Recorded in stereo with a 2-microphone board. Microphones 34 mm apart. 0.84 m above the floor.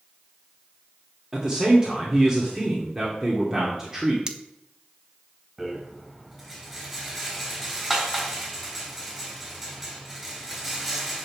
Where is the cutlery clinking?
25° right (ahead or behind), 0.9 m.